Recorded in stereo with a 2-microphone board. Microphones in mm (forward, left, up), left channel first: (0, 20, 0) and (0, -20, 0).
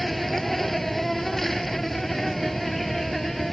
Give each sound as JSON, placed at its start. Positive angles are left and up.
{"t": 0.0, "sound": "an insect", "side_deg": 5}